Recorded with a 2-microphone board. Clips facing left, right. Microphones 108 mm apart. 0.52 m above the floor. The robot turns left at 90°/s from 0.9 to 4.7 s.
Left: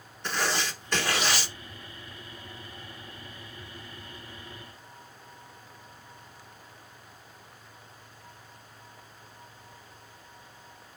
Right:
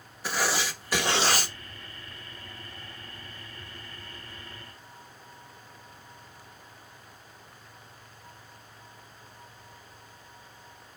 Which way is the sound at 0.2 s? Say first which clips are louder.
Right 1 dB; 5° right.